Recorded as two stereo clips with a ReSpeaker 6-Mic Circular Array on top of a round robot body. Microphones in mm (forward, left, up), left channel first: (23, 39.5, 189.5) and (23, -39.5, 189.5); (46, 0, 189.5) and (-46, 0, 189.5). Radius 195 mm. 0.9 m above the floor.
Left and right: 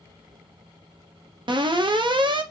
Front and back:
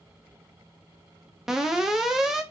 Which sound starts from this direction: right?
An alarm, at 1.5 s.